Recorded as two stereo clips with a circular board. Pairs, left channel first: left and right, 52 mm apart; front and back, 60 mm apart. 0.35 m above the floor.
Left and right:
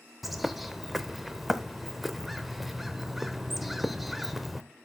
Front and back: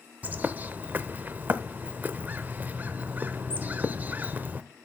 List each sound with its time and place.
0.2 s a bird: straight behind, 0.6 m